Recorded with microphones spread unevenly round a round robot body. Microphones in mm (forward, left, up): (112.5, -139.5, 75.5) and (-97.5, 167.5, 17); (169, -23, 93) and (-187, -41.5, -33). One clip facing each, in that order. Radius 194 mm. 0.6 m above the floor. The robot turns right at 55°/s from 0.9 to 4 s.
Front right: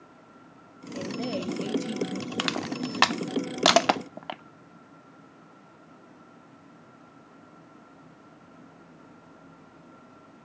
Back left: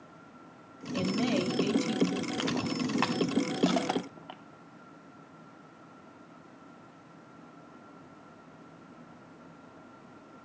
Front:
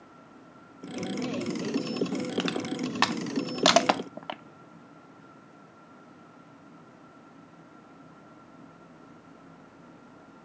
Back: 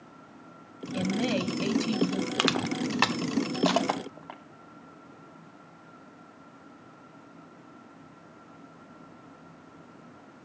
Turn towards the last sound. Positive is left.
turn(degrees=-30)